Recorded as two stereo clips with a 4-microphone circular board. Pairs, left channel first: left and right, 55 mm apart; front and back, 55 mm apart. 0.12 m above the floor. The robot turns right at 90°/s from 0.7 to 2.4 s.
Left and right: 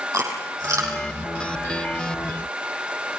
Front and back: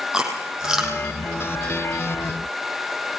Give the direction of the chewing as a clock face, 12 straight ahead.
3 o'clock.